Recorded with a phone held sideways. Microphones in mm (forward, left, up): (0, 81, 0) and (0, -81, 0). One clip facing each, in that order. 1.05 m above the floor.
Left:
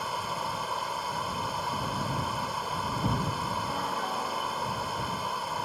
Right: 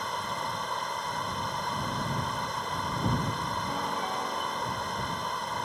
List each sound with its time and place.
0.0 s running water: 5° left (ahead or behind)
3.6 s a piano: 5° right (ahead or behind)